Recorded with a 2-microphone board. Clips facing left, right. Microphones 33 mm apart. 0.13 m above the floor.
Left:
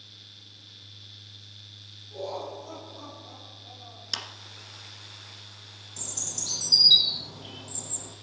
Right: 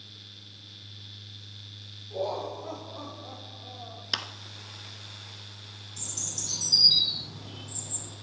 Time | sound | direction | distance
2.1 | laughter | 35° right (ahead or behind) | 7.5 m
4.1 | a clap | 20° right (ahead or behind) | 1.1 m
6.0 | a bird | 60° left (ahead or behind) | 3.5 m